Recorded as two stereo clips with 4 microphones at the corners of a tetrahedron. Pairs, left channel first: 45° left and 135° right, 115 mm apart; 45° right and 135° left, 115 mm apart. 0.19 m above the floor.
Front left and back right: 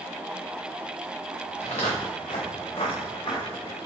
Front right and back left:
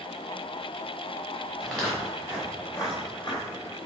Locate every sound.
1.6 s footsteps: 45° left, 1.8 m; by 3.8 s 5° right, 1.7 m